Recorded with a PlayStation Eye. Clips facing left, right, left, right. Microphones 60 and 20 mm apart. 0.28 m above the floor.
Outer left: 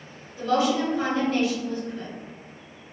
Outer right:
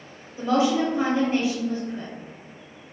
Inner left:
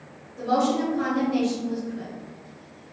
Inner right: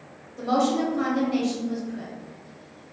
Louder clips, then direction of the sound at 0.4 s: Outer right 1 dB, even; 25° right (ahead or behind).